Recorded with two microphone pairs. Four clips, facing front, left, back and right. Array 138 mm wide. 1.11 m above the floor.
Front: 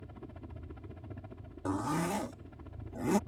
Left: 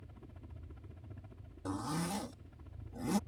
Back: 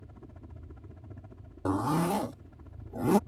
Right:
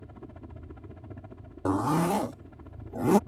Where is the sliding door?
No sliding door in this recording.